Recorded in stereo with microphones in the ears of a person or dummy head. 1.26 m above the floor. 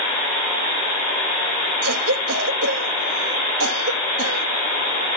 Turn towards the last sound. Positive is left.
turn(degrees=-80)